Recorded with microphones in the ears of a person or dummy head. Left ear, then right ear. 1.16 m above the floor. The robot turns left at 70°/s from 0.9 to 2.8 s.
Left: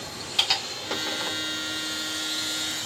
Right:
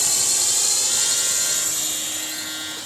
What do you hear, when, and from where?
0.0 s a drone: 65° right (ahead or behind); by 2.9 s 5° left (ahead or behind)